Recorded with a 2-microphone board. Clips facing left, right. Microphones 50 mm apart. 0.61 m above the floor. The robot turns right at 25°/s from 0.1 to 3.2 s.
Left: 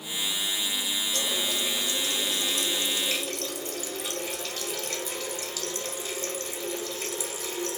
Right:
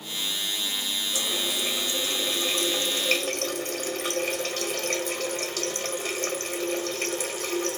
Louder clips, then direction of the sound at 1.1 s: Right 1 dB; 175° right.